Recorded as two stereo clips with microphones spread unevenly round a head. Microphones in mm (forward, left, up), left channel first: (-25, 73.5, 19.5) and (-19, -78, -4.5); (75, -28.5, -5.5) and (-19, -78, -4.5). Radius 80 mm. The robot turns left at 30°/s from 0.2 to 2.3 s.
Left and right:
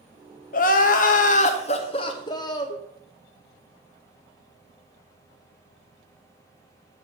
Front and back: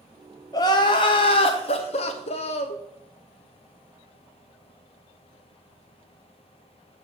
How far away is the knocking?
I don't hear knocking.